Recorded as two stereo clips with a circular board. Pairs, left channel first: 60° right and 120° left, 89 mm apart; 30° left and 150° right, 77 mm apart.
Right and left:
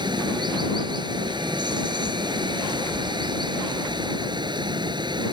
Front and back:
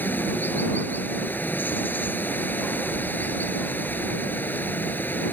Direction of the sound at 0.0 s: 95° left.